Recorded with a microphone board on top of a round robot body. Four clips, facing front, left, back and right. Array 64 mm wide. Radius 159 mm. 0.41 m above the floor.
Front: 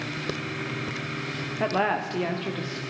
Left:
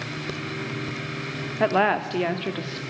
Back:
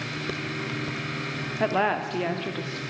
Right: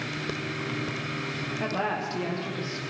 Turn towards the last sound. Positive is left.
turn(degrees=100)